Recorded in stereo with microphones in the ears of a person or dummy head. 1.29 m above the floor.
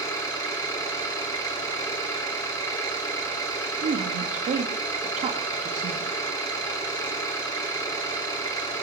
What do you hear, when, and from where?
0.0 s an engine running: 25° left (ahead or behind), 2.5 m
3.8 s a woman speaking: 30° right (ahead or behind), 1.7 m